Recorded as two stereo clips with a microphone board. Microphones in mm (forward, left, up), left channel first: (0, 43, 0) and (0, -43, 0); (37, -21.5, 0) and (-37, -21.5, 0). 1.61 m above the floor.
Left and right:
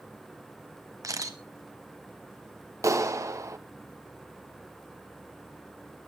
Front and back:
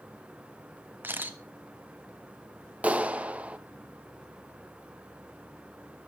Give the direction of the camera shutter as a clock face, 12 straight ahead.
4 o'clock.